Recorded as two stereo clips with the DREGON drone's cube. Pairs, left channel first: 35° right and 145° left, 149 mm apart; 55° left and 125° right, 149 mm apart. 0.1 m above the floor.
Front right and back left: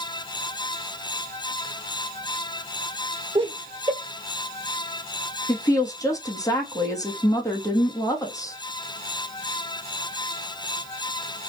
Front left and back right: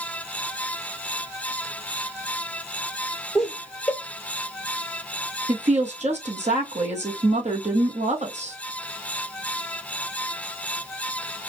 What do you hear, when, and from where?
3.4 s laughter: 140° left, 1.9 m
5.5 s a woman speaking: 100° right, 1.8 m